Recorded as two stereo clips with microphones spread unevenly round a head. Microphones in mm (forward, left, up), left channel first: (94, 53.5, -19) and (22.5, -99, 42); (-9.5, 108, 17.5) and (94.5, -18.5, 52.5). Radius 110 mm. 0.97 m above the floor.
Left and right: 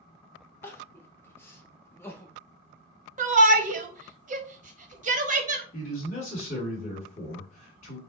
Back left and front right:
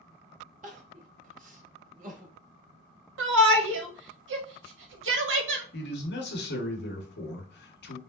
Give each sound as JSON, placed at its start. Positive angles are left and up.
{"t": 0.6, "sound": "crying", "azimuth_deg": -20, "distance_m": 1.1}
{"t": 3.2, "sound": "a shout", "azimuth_deg": -65, "distance_m": 1.2}
{"t": 5.7, "sound": "a man speaking", "azimuth_deg": 120, "distance_m": 1.6}